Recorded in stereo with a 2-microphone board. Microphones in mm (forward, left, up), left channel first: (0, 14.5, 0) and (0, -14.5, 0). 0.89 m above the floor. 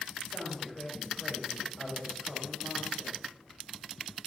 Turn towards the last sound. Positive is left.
turn(degrees=30)  # may be behind; listen again after turning